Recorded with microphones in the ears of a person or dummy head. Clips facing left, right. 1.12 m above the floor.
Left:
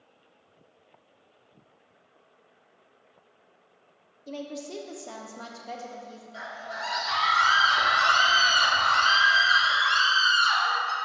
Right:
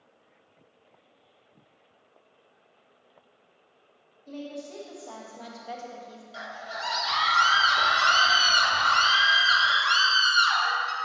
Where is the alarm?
No alarm in this recording.